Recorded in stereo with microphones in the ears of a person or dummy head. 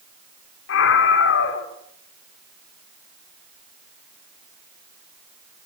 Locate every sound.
0.7 s a scream: 70° left (ahead or behind), 4 m